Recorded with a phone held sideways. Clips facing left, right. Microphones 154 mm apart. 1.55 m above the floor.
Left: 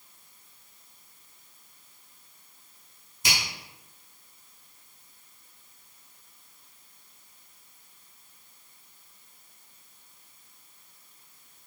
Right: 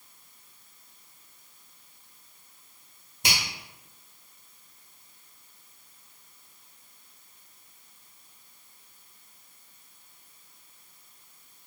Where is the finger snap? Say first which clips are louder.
Right 1 dB; 60° right (ahead or behind), 1.4 m.